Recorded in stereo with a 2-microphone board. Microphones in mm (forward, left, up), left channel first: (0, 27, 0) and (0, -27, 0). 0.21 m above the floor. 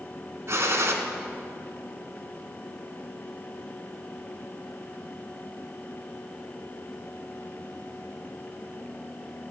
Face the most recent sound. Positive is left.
turn(degrees=-60)  # may be behind; listen again after turning